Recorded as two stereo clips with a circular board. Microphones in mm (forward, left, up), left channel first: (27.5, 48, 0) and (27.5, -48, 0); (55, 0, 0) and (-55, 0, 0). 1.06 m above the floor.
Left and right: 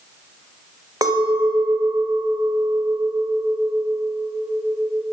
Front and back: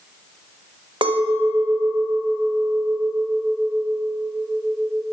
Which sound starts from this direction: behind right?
A clink, at 1.0 s.